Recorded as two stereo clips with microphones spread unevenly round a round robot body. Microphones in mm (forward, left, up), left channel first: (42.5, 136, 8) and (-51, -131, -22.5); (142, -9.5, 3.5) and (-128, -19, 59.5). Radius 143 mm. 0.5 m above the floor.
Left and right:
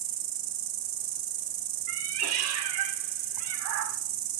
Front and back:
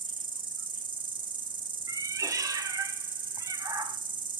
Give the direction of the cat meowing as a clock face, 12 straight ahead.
3 o'clock.